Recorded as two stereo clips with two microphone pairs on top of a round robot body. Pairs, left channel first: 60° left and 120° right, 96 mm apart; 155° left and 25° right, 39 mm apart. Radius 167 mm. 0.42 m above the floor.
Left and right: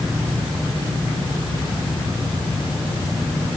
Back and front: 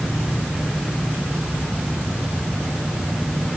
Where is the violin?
No violin in this recording.